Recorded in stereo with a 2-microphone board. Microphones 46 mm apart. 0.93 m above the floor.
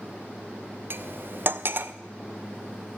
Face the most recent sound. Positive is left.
turn(degrees=-50)  # may be behind; listen again after turning